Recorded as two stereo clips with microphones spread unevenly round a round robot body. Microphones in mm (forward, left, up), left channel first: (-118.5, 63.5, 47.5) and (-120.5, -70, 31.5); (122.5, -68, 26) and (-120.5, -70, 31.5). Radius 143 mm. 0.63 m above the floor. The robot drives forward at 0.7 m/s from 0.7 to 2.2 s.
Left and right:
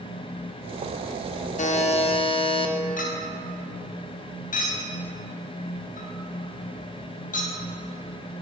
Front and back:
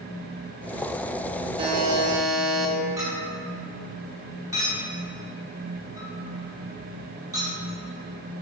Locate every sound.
1.6 s a buzzer: 110° left, 0.6 m; by 2.8 s 140° left, 0.8 m
3.0 s a clink: 100° left, 0.9 m